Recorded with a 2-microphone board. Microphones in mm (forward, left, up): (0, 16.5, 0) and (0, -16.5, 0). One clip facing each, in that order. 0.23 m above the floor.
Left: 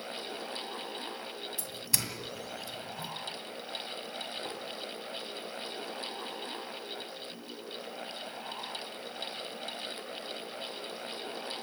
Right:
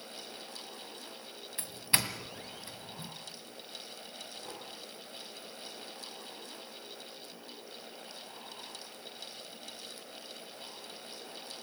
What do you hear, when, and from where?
1.6 s a doorbell: 35° right (ahead or behind), 2 m
4.5 s tapping: 45° left (ahead or behind), 7.5 m